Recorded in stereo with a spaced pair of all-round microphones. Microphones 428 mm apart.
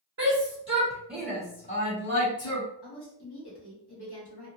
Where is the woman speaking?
65° left (ahead or behind), 1.3 m.